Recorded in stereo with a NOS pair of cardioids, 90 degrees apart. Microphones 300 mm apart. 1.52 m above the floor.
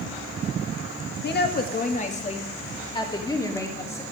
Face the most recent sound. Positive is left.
turn(degrees=10)